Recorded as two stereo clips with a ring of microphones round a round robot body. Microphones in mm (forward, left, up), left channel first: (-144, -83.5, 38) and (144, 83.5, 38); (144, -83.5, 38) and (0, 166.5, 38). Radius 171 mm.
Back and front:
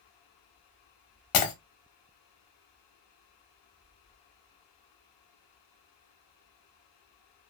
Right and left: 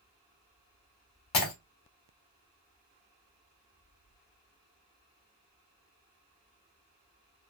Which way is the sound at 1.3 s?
105° right.